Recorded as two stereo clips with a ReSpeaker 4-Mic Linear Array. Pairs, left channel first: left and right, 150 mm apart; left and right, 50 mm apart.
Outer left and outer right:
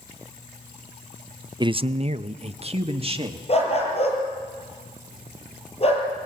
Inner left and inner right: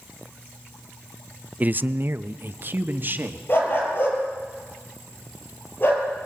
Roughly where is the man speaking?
Right.